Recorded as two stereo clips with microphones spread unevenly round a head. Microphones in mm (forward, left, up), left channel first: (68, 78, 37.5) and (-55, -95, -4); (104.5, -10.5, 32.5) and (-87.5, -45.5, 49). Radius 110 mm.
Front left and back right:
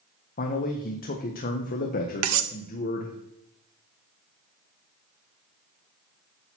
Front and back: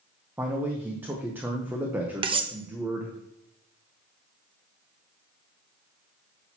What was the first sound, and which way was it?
A man speaking, 110° left.